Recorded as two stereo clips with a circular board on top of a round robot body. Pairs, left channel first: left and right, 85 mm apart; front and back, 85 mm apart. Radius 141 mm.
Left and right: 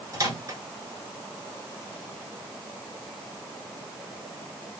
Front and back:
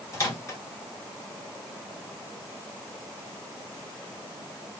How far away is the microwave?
About 2.5 m.